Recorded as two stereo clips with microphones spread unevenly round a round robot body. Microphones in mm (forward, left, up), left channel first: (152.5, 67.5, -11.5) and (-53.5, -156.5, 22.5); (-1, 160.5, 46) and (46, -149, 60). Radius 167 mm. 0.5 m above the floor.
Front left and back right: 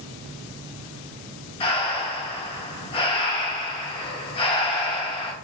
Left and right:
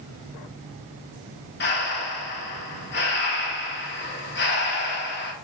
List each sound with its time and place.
1.6 s breathing: 95° left, 0.9 m